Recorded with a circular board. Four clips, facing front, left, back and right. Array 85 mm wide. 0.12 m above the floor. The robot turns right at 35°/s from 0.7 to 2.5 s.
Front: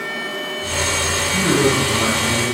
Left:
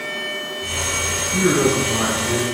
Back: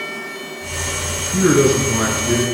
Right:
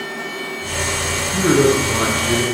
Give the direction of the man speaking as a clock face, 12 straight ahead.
6 o'clock.